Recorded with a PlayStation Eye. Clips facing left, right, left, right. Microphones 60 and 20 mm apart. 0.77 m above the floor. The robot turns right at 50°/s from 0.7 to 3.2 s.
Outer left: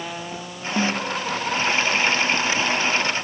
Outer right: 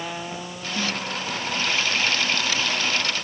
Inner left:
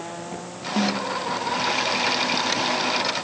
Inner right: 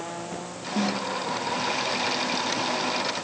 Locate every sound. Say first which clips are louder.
0.8 s a snare drum: outer left 5 dB, inner left 3 dB; 55° left (ahead or behind); by 1.2 s 30° left (ahead or behind)